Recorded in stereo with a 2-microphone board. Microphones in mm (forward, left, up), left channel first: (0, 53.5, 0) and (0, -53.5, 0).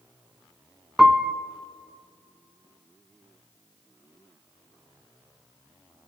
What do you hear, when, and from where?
1.0 s a piano: 5° right (ahead or behind), 0.7 m